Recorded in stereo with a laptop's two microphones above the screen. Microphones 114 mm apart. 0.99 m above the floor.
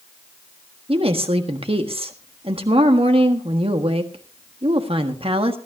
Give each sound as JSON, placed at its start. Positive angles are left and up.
{"t": 0.9, "sound": "a woman speaking", "side_deg": -55, "distance_m": 1.4}